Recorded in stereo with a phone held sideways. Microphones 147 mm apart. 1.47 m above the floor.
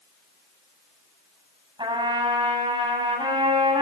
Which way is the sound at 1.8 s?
35° right (ahead or behind).